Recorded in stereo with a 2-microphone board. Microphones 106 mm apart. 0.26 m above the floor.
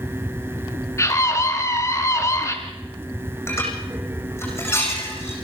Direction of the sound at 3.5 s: 20° left (ahead or behind).